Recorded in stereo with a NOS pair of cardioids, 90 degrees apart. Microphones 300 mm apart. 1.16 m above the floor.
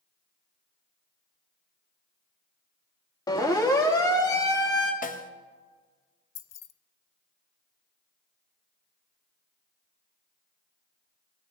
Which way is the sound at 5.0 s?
25° left.